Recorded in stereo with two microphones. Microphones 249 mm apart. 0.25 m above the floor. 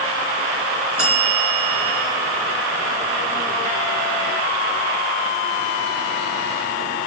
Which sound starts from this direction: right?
A bell, at 1.0 s.